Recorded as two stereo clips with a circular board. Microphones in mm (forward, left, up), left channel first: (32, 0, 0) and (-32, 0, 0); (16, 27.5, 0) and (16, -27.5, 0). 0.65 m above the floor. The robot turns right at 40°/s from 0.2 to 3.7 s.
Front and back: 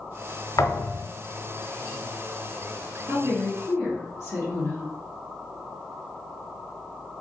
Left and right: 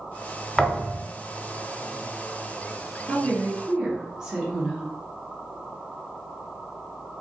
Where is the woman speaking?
45° right, 1.5 m; by 4.9 s 20° right, 1.5 m.